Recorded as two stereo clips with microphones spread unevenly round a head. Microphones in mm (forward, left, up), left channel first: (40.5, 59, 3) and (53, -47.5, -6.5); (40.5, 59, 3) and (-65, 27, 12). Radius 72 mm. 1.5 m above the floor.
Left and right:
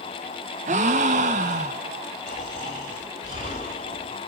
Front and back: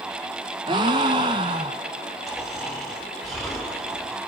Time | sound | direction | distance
0.7 | a gasp | 105° right | 1.0 m
2.3 | snoring | 105° left | 4 m